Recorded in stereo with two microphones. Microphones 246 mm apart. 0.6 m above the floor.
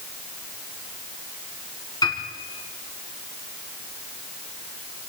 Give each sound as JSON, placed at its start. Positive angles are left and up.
{"t": 2.0, "sound": "a piano", "side_deg": 15, "distance_m": 4.5}